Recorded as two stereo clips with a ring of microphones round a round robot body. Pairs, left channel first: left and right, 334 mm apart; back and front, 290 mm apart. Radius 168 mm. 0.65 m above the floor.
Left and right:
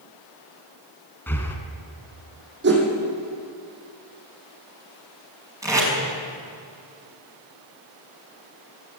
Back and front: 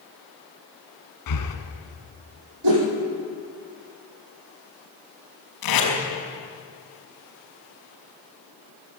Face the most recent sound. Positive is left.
turn(degrees=-170)